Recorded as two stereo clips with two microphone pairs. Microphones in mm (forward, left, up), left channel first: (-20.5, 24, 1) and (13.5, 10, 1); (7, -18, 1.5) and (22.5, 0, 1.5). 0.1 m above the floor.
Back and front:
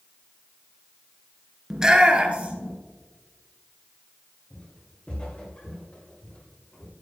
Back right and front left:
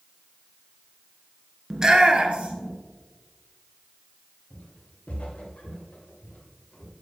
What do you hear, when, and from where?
1.7 s a shout: 35° left, 1.1 m; by 2.7 s 25° left, 2 m
4.5 s footsteps: 150° right, 3 m; by 6.9 s 140° right, 4.5 m